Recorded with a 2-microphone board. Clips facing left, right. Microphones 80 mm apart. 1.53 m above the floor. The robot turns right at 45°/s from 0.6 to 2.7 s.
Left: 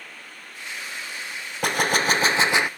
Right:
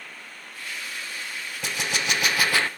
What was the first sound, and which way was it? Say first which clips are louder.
A gunshot: left 7 dB; 115° left.